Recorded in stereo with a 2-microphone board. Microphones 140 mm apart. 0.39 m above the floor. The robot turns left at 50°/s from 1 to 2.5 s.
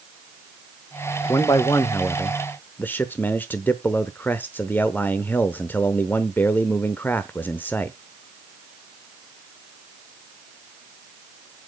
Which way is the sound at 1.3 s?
25° left (ahead or behind).